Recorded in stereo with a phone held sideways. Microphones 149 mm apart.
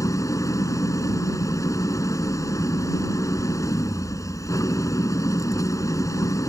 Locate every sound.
0.0 s an engine running: 20° left (ahead or behind)